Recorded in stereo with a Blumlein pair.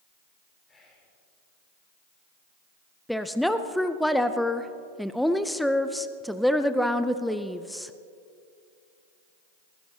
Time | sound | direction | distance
0.7 | whispering | 15° left | 5.5 m
3.1 | a woman speaking | straight ahead | 0.6 m